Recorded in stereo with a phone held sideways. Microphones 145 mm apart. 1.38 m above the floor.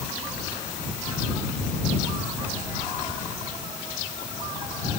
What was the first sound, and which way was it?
Only background noise.